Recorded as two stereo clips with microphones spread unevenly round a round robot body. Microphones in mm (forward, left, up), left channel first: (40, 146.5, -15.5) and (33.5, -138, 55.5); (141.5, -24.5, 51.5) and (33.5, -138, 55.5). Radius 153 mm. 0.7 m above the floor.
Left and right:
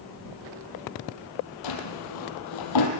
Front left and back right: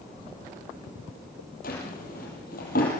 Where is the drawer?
100° left, 5.5 m.